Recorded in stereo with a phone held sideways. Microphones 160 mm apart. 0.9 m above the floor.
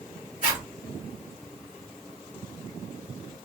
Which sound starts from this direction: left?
A zipper, at 0.4 s.